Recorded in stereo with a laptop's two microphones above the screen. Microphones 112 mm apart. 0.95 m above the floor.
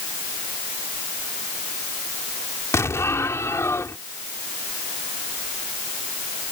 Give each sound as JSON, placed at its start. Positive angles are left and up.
{"t": 2.7, "sound": "an explosion", "side_deg": 25}